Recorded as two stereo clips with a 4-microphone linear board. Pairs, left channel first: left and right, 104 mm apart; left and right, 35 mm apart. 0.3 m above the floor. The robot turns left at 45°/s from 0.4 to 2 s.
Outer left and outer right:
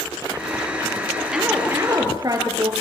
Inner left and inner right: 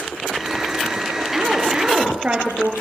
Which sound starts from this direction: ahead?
A woman speaking, at 1.3 s.